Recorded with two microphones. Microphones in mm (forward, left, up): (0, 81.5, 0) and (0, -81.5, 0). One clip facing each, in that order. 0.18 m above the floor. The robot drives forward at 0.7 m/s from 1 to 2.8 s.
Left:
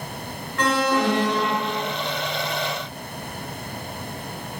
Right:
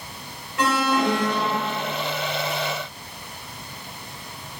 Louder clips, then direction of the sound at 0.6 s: Even; 10° right (ahead or behind).